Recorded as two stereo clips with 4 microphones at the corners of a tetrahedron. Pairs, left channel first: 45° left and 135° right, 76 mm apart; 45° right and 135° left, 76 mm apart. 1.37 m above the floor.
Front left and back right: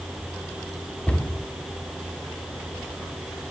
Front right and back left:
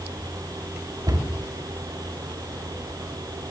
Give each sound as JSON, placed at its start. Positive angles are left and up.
{"t": 1.1, "sound": "a cupboard door", "azimuth_deg": 115, "distance_m": 3.5}